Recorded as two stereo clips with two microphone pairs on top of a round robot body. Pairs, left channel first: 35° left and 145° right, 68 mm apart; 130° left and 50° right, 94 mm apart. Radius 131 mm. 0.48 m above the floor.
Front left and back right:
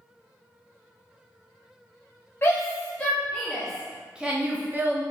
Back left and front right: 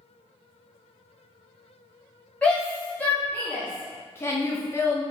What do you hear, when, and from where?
2.4 s a shout: 60° left, 1.4 m; by 5.0 s 165° left, 1.3 m